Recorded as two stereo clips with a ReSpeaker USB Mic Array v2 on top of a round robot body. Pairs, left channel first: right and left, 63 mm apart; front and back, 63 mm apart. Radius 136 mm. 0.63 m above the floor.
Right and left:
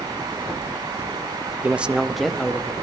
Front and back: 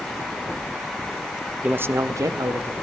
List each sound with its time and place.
1.6 s a man speaking: 130° left, 0.6 m; by 2.7 s 170° right, 1.1 m